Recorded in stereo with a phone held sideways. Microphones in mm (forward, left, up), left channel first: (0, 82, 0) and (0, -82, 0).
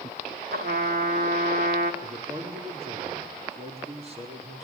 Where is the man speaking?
40° right (ahead or behind), 4.5 m.